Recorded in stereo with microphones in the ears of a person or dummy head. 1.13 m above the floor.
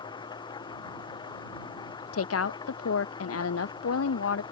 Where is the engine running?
35° left (ahead or behind).